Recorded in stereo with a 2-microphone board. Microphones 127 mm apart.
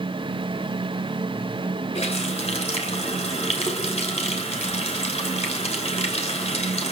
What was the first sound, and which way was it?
A running tap, 60° left (ahead or behind).